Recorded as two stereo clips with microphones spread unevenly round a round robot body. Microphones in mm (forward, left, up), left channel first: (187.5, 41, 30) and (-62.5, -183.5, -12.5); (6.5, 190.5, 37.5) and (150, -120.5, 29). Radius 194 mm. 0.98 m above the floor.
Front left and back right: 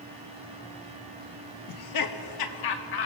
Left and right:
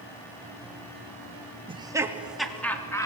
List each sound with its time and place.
1.7 s laughter: 10° left, 2.0 m; by 3.1 s 35° left, 3 m